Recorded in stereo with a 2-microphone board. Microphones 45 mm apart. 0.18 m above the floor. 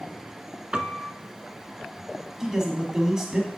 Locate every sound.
0.7 s a piano: 20° right (ahead or behind), 0.6 m
2.4 s a man speaking: 10° right (ahead or behind), 1.2 m